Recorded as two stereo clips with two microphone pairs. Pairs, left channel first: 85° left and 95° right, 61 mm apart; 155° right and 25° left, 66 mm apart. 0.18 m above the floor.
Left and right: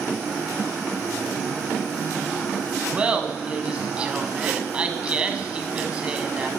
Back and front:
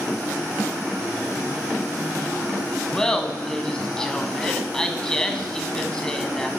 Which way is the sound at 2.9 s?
90° right.